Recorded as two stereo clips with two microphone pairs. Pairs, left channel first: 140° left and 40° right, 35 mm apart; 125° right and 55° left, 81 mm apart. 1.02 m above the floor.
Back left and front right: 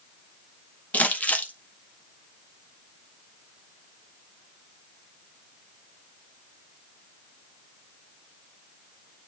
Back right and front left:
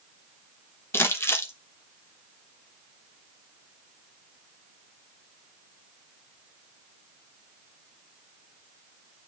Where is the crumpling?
Straight behind, 1.1 m.